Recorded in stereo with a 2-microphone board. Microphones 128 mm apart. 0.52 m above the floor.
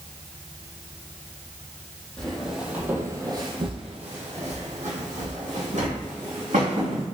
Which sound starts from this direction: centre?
Footsteps, at 2.2 s.